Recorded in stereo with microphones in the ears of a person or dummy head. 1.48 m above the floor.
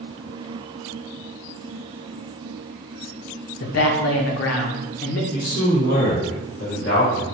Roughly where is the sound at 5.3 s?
Left.